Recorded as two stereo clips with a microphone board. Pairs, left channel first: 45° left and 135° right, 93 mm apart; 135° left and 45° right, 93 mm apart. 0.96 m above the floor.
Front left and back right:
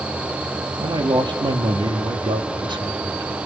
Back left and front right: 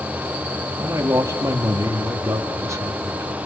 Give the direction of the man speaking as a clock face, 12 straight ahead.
3 o'clock.